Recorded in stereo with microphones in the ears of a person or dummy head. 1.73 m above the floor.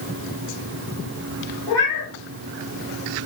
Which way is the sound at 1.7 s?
20° left (ahead or behind).